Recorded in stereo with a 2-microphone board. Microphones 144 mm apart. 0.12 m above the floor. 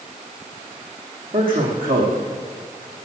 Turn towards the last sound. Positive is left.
turn(degrees=-75)  # may be behind; listen again after turning